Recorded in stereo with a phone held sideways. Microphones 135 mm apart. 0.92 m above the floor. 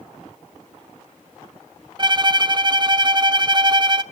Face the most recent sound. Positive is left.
turn(degrees=-35)  # may be behind; listen again after turning